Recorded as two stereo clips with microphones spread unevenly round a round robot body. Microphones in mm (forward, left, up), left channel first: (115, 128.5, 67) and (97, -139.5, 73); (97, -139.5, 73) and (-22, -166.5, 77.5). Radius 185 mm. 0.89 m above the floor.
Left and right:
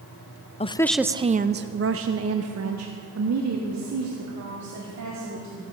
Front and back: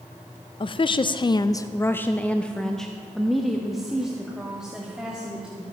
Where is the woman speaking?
25° left, 0.5 m; by 5.6 s 85° right, 2.5 m.